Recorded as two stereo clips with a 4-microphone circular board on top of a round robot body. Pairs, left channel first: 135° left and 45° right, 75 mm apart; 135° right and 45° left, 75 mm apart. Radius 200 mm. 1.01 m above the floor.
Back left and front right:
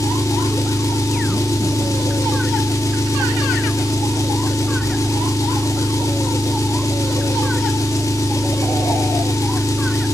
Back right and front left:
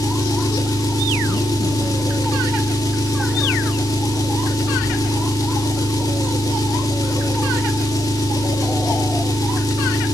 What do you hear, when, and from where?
0.0 s an engine running: 175° right, 2.5 m